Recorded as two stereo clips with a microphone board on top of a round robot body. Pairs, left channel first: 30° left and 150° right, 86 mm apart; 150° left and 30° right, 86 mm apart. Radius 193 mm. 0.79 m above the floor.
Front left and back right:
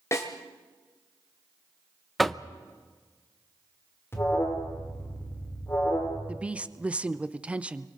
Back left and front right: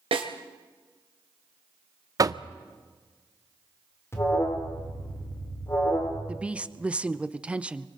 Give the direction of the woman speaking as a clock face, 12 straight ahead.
3 o'clock.